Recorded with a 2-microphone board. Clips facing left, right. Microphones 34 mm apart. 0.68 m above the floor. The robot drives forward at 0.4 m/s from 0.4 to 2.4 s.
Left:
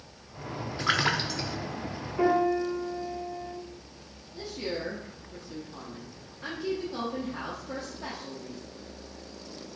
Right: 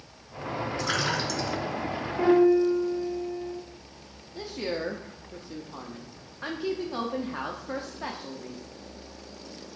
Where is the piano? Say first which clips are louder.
Right 5 dB; 5° left (ahead or behind), 3.5 m.